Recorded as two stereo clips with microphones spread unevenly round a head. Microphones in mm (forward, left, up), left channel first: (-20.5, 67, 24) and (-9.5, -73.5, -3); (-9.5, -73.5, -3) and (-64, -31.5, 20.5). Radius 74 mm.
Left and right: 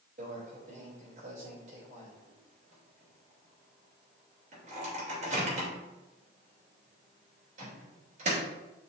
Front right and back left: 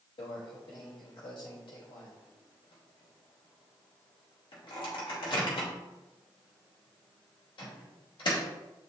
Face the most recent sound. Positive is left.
turn(degrees=-40)